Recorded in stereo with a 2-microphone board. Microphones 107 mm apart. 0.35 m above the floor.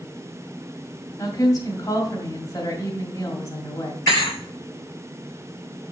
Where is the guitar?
I don't hear a guitar.